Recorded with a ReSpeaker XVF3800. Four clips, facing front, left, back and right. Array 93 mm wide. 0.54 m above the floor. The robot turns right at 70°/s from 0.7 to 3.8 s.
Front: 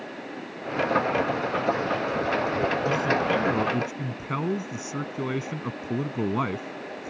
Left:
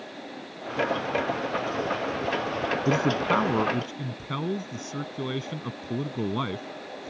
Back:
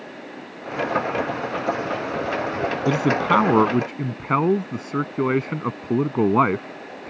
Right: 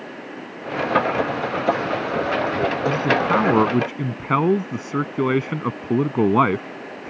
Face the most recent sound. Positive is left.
turn(degrees=-130)